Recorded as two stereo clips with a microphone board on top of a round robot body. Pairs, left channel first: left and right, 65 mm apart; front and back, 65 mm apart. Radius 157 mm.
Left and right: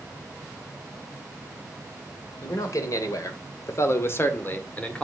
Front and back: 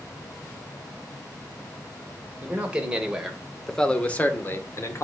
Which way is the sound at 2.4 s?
115° left.